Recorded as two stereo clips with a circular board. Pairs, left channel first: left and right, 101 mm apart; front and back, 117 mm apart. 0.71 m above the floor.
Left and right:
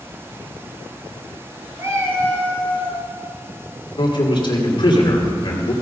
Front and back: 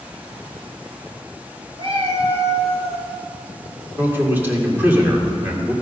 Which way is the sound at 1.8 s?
145° right.